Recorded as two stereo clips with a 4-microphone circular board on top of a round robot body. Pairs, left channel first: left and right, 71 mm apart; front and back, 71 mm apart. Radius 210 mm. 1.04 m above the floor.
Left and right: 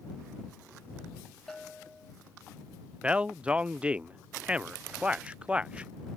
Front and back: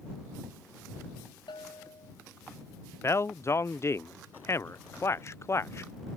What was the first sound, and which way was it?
A bell, 5° left.